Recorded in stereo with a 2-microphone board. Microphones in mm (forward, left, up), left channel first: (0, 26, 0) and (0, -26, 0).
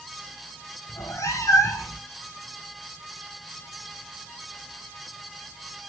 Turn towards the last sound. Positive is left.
turn(degrees=75)  # may be behind; listen again after turning